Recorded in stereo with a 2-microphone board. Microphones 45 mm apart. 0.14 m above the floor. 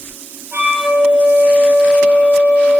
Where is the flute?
35° right (ahead or behind), 3.5 m.